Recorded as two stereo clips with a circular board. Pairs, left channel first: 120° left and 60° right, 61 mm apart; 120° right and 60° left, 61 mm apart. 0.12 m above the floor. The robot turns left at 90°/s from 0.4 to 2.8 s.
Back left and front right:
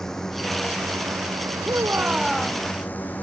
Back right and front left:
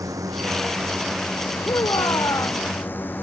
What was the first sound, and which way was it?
A drone, 40° left.